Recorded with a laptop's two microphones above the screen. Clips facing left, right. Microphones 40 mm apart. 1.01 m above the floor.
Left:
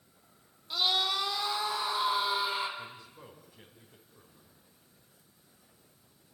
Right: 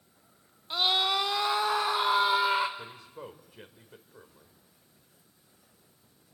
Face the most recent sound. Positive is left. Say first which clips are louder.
# right 2 dB
turn(degrees=-60)  # may be behind; listen again after turning